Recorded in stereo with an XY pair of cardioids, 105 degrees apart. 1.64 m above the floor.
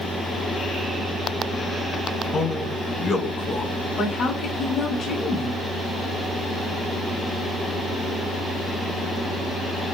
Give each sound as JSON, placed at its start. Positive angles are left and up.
{"t": 2.3, "sound": "a man speaking", "azimuth_deg": 55, "distance_m": 1.5}
{"t": 4.0, "sound": "a woman speaking", "azimuth_deg": 60, "distance_m": 1.7}